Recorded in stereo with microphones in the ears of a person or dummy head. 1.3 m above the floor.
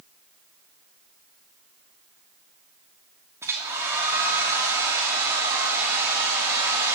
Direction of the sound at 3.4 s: 20° right (ahead or behind).